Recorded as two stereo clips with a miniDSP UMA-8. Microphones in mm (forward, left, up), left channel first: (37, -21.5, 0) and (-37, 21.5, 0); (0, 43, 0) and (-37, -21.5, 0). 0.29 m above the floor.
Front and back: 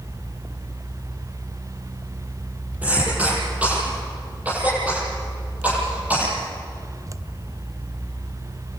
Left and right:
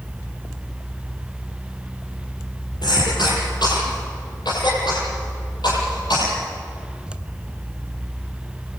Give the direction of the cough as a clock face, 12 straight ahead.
9 o'clock.